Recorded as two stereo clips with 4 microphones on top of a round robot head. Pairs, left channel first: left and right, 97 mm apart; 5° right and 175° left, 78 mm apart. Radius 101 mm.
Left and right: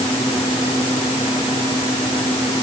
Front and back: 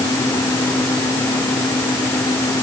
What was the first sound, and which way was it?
Only background noise.